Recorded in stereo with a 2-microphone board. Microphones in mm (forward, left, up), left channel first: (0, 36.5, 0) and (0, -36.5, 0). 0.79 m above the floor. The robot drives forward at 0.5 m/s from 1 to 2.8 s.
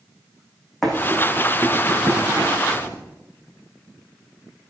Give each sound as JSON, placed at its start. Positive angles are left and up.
{"t": 0.8, "sound": "running footsteps", "side_deg": 5, "distance_m": 3.0}